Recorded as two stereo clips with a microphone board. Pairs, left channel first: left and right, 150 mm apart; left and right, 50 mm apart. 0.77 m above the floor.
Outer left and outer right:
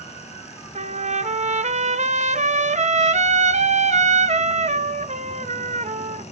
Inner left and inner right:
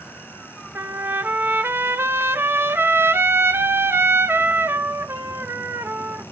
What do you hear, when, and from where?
0.8 s a trumpet: 50° right (ahead or behind), 0.6 m